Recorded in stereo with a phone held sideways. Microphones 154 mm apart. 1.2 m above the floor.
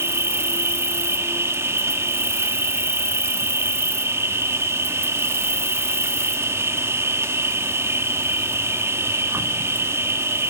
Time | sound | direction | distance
0.0 | an insect | 15° right (ahead or behind) | 0.8 m